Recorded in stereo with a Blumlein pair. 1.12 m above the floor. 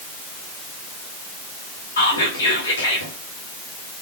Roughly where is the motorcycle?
I don't hear a motorcycle.